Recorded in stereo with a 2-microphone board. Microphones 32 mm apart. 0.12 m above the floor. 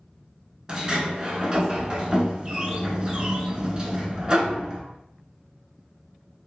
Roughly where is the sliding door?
Right.